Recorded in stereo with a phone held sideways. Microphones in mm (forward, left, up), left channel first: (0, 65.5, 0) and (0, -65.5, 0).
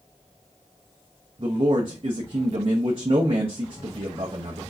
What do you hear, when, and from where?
1.4 s a man speaking: 45° right (ahead or behind), 0.9 m